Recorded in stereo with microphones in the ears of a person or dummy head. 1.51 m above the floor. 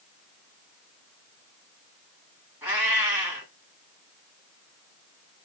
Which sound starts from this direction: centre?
A cat meowing, at 2.6 s.